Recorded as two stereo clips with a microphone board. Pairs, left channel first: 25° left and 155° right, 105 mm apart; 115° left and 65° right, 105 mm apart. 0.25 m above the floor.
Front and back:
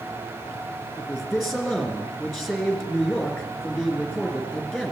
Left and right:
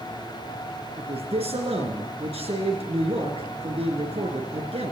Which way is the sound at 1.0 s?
65° right.